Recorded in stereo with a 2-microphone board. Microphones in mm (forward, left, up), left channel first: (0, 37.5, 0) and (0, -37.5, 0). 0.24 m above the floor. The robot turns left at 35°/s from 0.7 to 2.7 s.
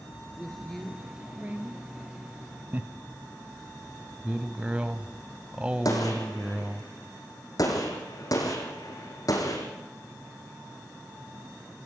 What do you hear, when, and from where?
0.4 s a woman speaking: 5° left, 3.5 m; by 1.9 s 35° right, 3.5 m
2.7 s laughter: 25° right (ahead or behind), 1.4 m
4.2 s a man speaking: 15° right (ahead or behind), 1.1 m
5.8 s a gunshot: 55° left (ahead or behind), 5.5 m